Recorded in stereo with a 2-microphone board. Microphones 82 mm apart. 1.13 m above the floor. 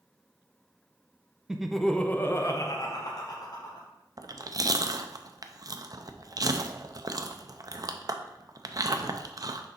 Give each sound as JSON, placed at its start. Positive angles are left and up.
{"t": 1.5, "sound": "laughter", "side_deg": -10, "distance_m": 0.6}
{"t": 4.2, "sound": "chewing", "side_deg": -45, "distance_m": 0.5}